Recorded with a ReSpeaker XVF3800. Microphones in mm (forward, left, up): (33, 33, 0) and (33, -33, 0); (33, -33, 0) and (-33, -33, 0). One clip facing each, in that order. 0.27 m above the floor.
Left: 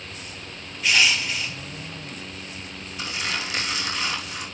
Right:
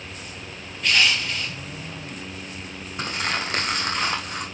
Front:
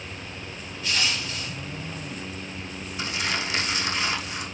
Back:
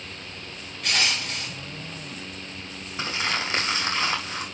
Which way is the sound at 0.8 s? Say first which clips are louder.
Even, back 2 dB; 170° left.